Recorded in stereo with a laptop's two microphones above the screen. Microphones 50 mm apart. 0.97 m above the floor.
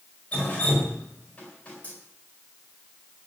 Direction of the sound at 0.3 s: 30° left (ahead or behind).